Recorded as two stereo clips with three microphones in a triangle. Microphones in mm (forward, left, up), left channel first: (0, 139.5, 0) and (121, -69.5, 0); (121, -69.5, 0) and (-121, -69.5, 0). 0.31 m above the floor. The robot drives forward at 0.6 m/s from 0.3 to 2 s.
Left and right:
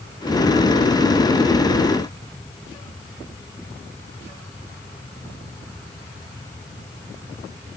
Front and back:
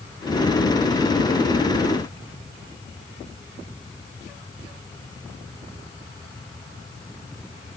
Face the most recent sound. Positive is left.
No sound to turn to.